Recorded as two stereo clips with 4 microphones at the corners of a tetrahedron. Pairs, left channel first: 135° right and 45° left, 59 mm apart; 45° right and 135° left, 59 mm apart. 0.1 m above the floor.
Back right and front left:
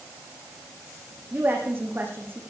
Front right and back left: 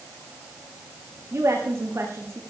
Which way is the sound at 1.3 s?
100° left.